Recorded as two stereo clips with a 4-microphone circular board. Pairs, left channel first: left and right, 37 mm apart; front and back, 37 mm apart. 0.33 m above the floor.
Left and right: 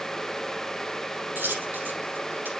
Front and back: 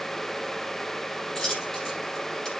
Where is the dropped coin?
70° right, 5.5 m.